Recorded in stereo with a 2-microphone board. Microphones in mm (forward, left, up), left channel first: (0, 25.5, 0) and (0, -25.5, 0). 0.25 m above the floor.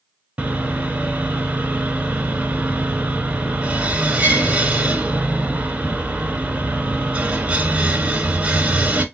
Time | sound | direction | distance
0.4 | sawing | 30° right (ahead or behind) | 0.7 m